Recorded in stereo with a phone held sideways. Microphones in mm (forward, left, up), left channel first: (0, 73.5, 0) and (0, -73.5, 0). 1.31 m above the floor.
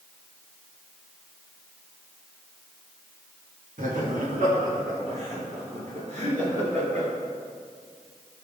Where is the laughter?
65° right (ahead or behind), 2.5 m; by 7.1 s 50° right (ahead or behind), 5 m.